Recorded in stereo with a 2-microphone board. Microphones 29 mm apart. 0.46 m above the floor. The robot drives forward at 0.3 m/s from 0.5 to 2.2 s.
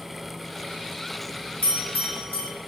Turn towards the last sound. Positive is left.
turn(degrees=50)  # may be behind; listen again after turning